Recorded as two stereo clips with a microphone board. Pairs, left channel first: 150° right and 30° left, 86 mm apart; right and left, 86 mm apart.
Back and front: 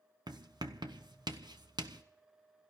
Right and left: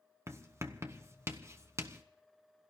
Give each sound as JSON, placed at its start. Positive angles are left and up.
{"t": 0.3, "sound": "writing", "azimuth_deg": 40, "distance_m": 1.0}